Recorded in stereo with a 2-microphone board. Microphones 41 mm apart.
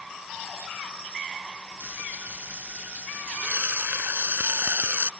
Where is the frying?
55° right (ahead or behind).